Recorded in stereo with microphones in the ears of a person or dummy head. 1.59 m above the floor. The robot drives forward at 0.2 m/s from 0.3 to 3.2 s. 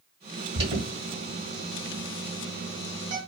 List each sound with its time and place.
0.6 s an alarm: 35° right (ahead or behind), 1.5 m; by 3.2 s 45° right (ahead or behind), 1.2 m